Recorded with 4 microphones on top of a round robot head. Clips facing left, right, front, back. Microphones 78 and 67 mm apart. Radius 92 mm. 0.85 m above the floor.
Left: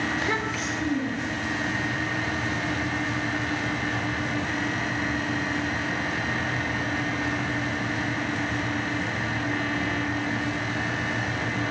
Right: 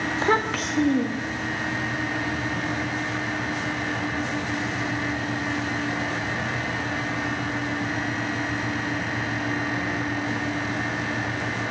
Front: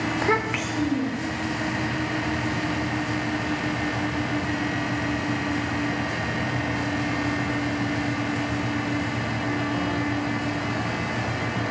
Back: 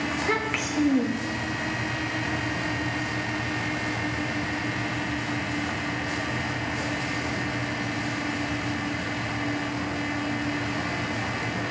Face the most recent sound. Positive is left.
turn(degrees=-130)